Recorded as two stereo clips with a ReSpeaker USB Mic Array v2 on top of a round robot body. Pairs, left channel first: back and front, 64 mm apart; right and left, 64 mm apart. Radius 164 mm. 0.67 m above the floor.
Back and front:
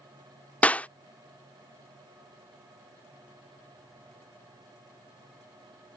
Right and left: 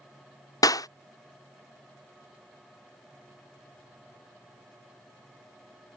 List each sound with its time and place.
0.6 s a clap: 110° right